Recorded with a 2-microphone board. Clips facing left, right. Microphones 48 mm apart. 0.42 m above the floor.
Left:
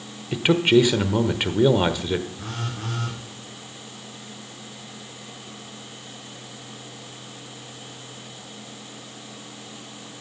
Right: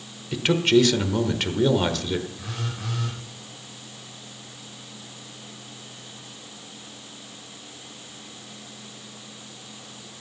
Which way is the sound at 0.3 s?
15° left (ahead or behind).